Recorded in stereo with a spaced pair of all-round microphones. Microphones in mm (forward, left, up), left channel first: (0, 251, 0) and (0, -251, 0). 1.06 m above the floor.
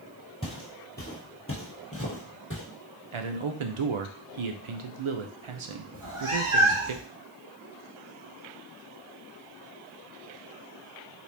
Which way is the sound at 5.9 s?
75° right (ahead or behind).